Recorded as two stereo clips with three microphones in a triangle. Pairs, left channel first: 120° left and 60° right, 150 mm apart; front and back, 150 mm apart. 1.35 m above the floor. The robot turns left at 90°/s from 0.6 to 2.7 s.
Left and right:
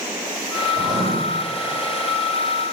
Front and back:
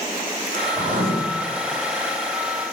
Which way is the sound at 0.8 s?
105° right.